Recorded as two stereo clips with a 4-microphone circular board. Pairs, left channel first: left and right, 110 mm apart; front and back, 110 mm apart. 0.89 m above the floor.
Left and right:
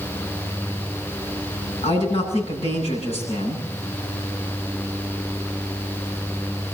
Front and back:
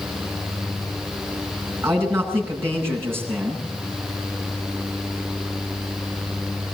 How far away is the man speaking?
About 8 m.